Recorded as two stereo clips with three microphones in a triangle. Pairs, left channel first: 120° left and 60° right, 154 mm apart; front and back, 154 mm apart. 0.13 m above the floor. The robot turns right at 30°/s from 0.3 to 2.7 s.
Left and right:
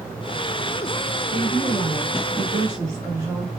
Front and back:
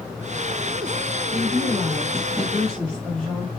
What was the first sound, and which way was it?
A woman speaking, 110° right.